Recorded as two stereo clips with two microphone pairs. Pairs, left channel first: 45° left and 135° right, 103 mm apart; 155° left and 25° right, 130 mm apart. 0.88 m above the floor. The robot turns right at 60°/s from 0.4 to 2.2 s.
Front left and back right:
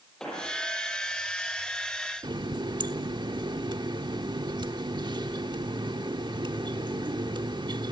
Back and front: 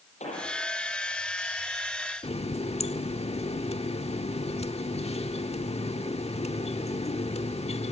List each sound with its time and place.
0.2 s an explosion: 130° left, 6.5 m; by 0.5 s 135° left, 6.5 m
2.2 s a running tap: 175° right, 1.2 m